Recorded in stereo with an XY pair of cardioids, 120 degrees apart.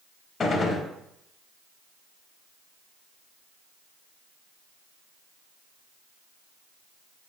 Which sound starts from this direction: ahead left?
A gunshot, at 0.4 s.